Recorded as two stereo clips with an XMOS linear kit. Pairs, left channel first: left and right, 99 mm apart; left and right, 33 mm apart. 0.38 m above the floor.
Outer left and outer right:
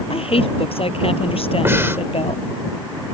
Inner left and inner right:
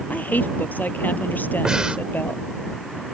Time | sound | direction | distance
0.1 | a woman speaking | 70° left (ahead or behind) | ?
1.6 | breathing | 25° right (ahead or behind) | ?